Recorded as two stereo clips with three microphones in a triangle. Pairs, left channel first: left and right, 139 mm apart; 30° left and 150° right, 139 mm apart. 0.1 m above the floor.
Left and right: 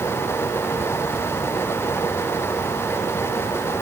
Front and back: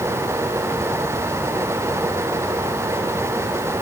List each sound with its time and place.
Only background noise.